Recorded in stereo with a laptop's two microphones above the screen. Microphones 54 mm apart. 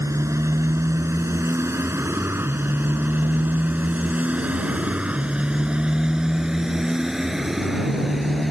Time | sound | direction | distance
0.0 | a motorcycle | 70° right (ahead or behind) | ?